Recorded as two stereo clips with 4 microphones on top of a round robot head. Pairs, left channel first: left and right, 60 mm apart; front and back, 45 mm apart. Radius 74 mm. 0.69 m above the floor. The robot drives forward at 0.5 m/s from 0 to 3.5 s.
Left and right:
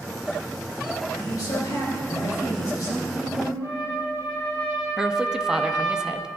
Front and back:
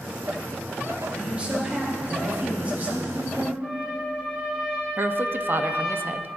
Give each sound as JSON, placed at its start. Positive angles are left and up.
{"t": 1.1, "sound": "a man speaking", "azimuth_deg": 115, "distance_m": 3.5}
{"t": 3.6, "sound": "a trumpet", "azimuth_deg": 115, "distance_m": 3.0}
{"t": 5.0, "sound": "a woman speaking", "azimuth_deg": -170, "distance_m": 0.6}